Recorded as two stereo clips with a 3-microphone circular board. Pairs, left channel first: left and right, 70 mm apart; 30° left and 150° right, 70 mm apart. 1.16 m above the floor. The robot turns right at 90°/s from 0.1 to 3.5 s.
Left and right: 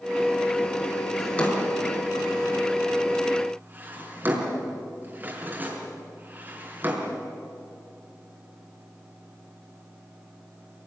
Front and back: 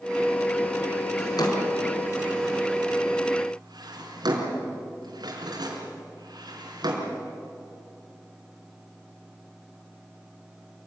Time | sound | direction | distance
1.2 | a drawer | straight ahead | 4.5 m